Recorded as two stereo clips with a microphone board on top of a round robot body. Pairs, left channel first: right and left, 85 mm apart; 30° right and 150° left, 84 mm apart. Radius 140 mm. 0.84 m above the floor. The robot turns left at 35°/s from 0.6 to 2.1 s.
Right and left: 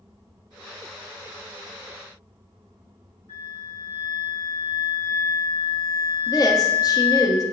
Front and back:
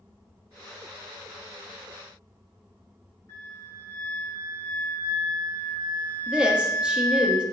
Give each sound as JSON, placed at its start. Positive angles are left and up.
{"t": 3.3, "sound": "a flute", "azimuth_deg": -95, "distance_m": 4.0}
{"t": 6.3, "sound": "a woman speaking", "azimuth_deg": -130, "distance_m": 1.5}